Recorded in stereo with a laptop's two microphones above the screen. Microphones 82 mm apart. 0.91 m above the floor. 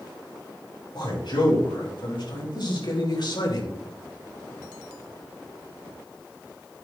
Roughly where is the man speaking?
Left.